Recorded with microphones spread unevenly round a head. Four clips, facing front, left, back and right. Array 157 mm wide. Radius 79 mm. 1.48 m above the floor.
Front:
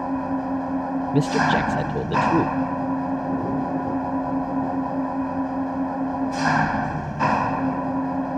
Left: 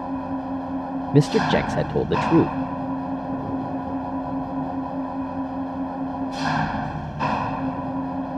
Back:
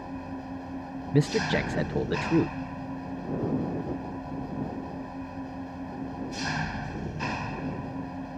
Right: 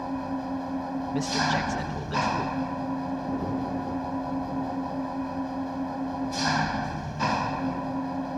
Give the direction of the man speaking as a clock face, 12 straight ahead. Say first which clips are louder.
Left 9 dB, front 5 dB; 9 o'clock.